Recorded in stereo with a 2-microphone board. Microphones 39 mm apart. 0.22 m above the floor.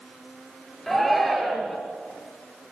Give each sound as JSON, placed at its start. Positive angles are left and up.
{"t": 0.9, "sound": "a shout", "side_deg": 5, "distance_m": 3.5}